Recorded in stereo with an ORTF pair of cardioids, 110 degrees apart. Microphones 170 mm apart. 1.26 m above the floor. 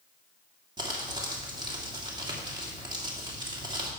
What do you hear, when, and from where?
0.8 s crumpling: 25° right, 2.5 m